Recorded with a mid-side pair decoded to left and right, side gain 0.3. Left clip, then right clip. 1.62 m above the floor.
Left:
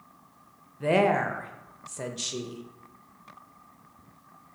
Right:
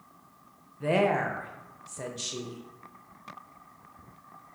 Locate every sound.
0.8 s a woman speaking: 35° left, 0.7 m